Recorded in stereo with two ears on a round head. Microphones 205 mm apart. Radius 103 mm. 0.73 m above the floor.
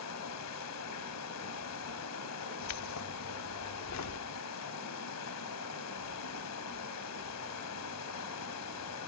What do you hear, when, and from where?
0.0 s running water: 80° left, 3 m
2.6 s keys jangling: 80° left, 1.0 m